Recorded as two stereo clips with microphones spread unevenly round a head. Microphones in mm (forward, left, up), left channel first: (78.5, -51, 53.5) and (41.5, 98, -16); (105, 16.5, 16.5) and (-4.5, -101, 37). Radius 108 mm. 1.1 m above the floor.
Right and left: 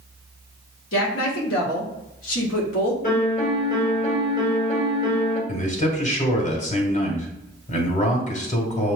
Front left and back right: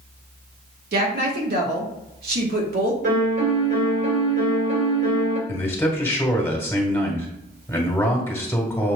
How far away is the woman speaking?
About 1.8 m.